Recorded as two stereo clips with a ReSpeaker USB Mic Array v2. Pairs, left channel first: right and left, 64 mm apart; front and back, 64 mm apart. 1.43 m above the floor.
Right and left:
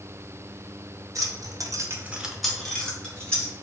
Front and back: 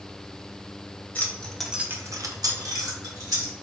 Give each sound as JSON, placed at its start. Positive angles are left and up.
{"t": 1.1, "sound": "keys jangling", "azimuth_deg": 60, "distance_m": 0.9}